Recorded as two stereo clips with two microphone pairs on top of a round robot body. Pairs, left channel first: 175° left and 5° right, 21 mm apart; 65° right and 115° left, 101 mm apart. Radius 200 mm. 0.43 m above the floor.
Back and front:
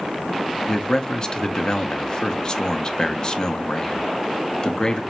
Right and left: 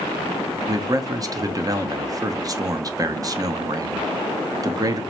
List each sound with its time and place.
0.7 s a man speaking: 155° left, 1.2 m